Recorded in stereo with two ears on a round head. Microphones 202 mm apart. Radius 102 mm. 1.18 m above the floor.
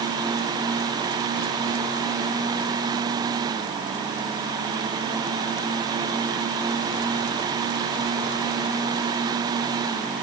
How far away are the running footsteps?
I don't hear running footsteps.